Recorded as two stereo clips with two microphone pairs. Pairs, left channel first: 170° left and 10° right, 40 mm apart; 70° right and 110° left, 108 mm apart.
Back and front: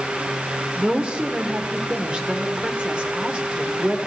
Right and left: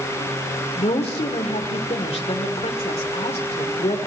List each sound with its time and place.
0.8 s a woman speaking: 70° right, 2.5 m